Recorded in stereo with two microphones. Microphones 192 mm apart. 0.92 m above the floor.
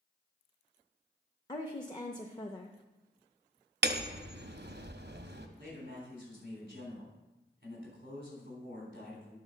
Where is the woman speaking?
25° left (ahead or behind), 0.6 m.